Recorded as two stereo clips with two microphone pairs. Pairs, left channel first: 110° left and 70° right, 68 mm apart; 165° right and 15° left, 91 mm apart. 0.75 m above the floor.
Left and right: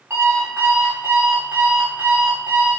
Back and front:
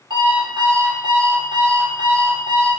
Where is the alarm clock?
15° right, 1.3 m.